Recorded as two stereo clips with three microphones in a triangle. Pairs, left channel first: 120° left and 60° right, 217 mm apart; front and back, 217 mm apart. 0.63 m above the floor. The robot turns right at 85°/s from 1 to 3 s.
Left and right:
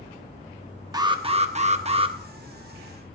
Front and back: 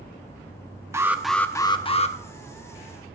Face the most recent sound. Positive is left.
turn(degrees=55)